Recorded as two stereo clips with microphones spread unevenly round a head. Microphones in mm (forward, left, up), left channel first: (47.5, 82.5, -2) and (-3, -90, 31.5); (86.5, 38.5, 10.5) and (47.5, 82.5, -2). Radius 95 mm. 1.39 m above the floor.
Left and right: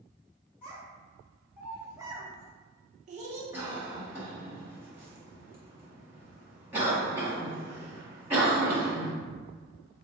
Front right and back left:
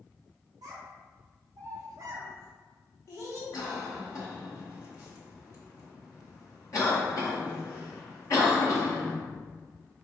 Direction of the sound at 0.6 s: 160° left.